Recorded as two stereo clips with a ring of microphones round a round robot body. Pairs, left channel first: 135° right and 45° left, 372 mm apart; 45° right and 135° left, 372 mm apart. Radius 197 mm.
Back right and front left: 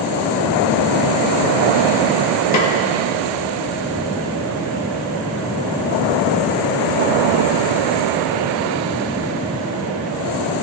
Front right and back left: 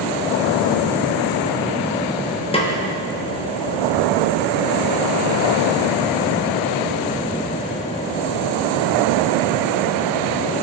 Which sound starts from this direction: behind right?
A snare drum, at 2.5 s.